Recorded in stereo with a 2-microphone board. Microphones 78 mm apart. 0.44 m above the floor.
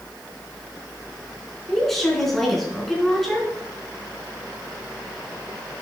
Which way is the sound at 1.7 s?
5° left (ahead or behind).